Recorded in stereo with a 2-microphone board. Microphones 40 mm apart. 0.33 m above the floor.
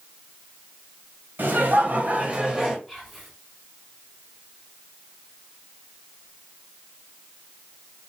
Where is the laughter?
55° right (ahead or behind), 1.4 m; by 2.8 s 10° right (ahead or behind), 1.2 m.